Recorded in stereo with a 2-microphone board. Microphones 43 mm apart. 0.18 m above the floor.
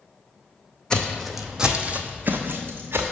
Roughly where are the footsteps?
Centre.